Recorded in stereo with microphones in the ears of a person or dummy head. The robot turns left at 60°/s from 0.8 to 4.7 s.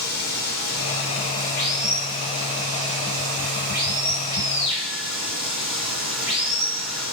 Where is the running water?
60° left, 3 m; by 7.1 s 175° right, 3 m.